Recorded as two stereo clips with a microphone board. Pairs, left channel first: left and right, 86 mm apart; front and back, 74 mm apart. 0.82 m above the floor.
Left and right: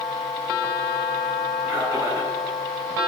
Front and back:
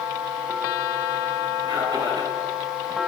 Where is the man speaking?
155° right, 8 m.